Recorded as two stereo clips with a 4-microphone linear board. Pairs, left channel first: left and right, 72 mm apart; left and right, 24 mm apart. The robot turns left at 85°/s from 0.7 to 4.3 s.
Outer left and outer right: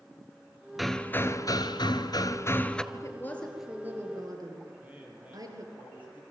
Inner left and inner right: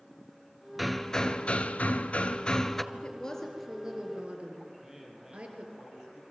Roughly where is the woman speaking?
Ahead left.